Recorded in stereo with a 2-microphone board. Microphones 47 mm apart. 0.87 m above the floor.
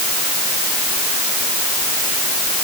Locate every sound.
Only background noise.